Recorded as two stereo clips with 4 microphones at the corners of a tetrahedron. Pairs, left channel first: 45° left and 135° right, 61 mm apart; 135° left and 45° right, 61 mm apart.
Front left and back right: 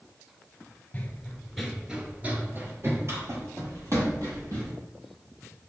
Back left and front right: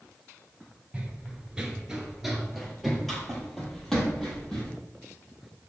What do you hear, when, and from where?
0.9 s running footsteps: 10° left, 0.8 m; by 4.7 s 145° right, 1.9 m